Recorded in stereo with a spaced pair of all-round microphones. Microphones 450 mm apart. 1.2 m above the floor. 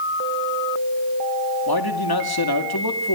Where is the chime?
No chime in this recording.